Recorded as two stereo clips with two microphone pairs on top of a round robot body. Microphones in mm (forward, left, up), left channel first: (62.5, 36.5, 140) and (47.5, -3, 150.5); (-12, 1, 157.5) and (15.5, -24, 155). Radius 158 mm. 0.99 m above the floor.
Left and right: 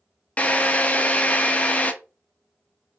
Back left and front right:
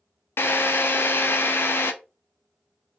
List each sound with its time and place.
0.4 s a drill: 120° left, 0.5 m